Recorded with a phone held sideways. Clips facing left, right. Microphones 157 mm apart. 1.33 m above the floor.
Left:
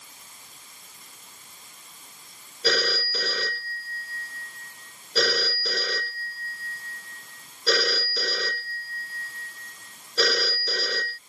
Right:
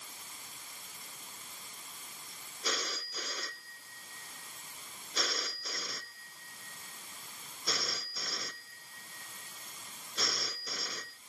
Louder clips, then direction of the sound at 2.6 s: Left 13 dB; 85° left.